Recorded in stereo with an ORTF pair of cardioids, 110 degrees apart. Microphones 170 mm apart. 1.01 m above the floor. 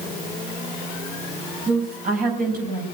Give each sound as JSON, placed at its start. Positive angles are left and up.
{"t": 1.7, "sound": "a woman speaking", "azimuth_deg": -60, "distance_m": 6.0}